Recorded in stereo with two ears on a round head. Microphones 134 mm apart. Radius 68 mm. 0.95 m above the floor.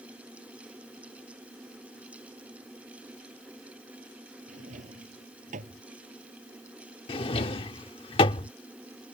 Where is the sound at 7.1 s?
35° left (ahead or behind).